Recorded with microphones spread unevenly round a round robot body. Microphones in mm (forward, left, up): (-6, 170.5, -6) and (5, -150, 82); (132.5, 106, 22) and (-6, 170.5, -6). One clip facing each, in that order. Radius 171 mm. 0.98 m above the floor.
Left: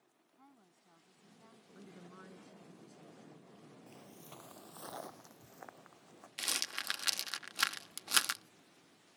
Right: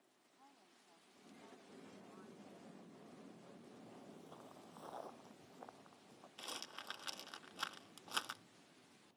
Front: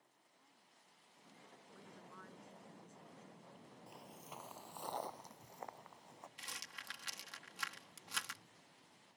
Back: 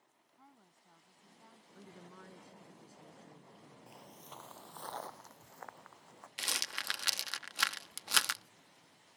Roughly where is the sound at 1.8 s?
Left.